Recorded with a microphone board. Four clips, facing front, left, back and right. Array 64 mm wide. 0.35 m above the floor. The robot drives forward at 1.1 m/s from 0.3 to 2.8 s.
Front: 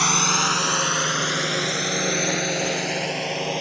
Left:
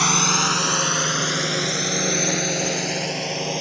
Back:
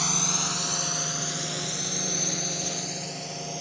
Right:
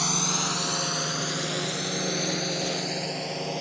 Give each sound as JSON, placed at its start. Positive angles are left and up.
{"t": 0.0, "sound": "a drone", "azimuth_deg": 45}